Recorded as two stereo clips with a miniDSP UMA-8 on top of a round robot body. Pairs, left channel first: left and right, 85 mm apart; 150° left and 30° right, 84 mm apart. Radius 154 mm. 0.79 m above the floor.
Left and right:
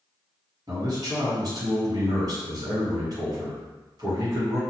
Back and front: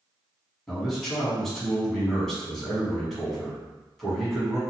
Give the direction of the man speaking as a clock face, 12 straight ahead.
4 o'clock.